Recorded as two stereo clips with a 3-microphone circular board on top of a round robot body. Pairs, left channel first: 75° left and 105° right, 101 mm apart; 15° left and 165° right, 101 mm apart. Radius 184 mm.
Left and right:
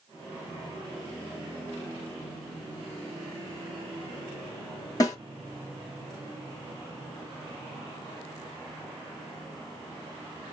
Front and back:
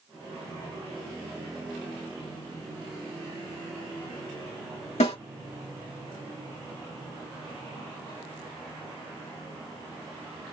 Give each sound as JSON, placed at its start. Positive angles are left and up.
{"t": 5.0, "sound": "a snare drum", "azimuth_deg": 20, "distance_m": 1.9}